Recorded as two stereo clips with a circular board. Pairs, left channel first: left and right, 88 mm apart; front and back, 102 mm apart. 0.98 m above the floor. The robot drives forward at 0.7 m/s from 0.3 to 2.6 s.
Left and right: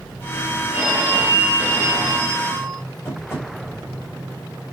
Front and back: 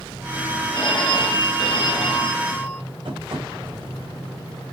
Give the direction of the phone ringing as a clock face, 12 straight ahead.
1 o'clock.